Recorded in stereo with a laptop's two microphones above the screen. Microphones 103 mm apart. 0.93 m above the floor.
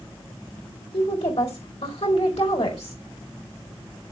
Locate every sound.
0.9 s a woman speaking: 80° left, 3.5 m